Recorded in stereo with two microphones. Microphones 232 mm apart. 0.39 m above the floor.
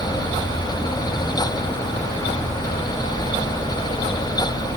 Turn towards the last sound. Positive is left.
No sound to turn to.